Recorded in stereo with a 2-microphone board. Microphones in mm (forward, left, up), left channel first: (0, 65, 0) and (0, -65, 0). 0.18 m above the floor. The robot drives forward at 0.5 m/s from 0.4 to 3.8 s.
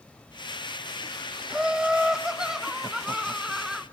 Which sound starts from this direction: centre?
Laughter, at 1.5 s.